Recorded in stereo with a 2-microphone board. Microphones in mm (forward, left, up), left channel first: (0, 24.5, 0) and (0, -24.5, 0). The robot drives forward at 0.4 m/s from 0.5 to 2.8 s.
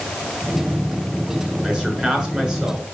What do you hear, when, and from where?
1.6 s a man speaking: 15° right (ahead or behind), 6 m